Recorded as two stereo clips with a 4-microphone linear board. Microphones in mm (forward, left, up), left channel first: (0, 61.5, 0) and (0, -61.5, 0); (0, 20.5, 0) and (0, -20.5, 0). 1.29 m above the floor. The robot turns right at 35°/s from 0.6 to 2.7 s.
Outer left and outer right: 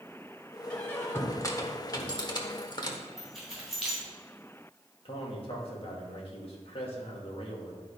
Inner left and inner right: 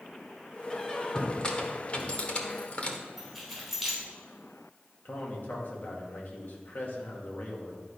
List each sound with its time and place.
0.7 s a squeak: 15° left (ahead or behind), 1.1 m; by 3.0 s 40° left (ahead or behind), 1.1 m
3.2 s keys jangling: 5° left (ahead or behind), 4 m
5.0 s a man speaking: 50° left (ahead or behind), 2 m